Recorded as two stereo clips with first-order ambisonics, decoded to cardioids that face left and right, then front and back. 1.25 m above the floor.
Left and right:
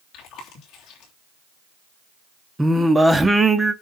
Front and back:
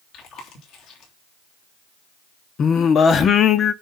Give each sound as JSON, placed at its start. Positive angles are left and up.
{"t": 0.1, "sound": "chewing", "azimuth_deg": 40, "distance_m": 3.0}
{"t": 2.6, "sound": "singing", "azimuth_deg": -15, "distance_m": 0.7}